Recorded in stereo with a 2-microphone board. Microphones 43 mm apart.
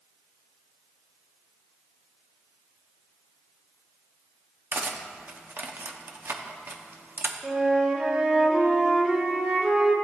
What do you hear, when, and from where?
4.7 s cutlery clinking: 50° right (ahead or behind), 0.6 m
7.4 s a flute: 25° right (ahead or behind), 1.0 m